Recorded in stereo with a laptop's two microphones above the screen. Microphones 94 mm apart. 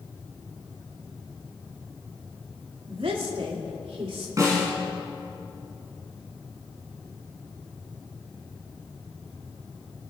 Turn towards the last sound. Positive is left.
turn(degrees=-40)  # may be behind; listen again after turning